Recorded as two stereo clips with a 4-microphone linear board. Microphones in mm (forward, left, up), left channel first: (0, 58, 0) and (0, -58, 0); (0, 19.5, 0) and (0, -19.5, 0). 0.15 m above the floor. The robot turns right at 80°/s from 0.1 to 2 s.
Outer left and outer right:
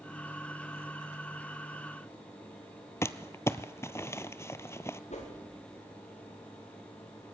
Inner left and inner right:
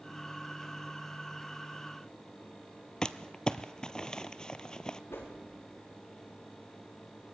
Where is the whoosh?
80° left, 6.5 m.